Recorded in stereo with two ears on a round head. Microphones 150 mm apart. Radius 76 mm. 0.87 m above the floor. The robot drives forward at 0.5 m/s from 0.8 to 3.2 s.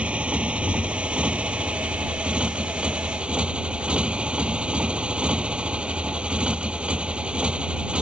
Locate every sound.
0.0 s a motorcycle: 10° right (ahead or behind); by 8.0 s 5° right (ahead or behind)